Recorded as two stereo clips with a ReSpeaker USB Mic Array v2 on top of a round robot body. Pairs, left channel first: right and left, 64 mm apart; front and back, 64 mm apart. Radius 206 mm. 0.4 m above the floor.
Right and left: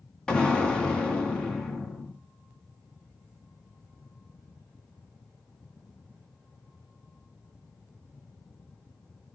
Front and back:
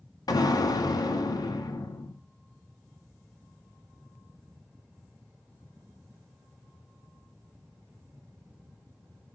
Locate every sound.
0.3 s an explosion: 15° right, 2 m